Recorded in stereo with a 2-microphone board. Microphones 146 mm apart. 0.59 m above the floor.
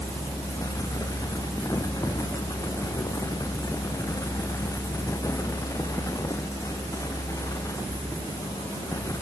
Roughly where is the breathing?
I don't hear breathing.